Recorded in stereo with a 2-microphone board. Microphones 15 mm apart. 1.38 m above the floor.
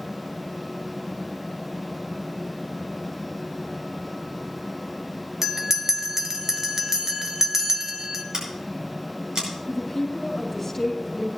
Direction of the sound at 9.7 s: 20° left (ahead or behind).